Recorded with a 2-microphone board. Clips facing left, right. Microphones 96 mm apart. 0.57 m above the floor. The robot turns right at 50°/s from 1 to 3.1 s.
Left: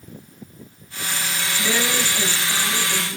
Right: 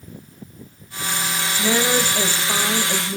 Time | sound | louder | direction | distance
1.6 | a woman speaking | right 4 dB | 150° right | 2.5 m